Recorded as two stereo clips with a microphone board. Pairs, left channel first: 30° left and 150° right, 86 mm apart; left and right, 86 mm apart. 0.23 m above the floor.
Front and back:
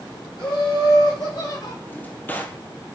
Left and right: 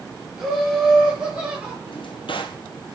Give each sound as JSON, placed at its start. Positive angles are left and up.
{"t": 0.4, "sound": "laughter", "azimuth_deg": -5, "distance_m": 6.0}
{"t": 1.9, "sound": "a drawer", "azimuth_deg": 100, "distance_m": 1.5}